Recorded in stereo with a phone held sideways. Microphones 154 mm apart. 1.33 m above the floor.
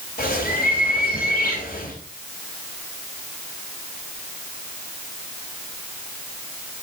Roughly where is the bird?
Left.